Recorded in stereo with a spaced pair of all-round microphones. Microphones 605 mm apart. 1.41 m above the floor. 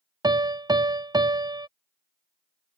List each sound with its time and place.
0.2 s a piano: 5° right (ahead or behind)